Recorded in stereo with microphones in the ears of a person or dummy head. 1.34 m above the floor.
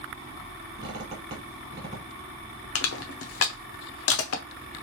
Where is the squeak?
25° right (ahead or behind), 2.5 m.